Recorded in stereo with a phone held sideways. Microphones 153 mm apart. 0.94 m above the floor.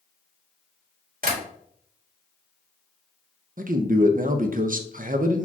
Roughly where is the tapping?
Right.